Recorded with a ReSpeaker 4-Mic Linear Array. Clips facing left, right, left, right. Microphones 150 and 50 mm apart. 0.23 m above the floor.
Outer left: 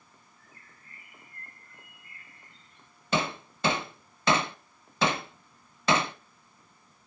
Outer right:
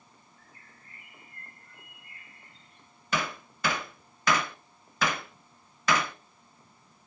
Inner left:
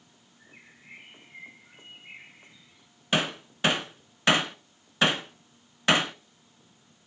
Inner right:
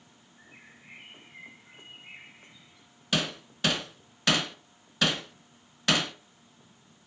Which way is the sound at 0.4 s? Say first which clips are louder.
Outer right 1 dB, even; 60° right (ahead or behind).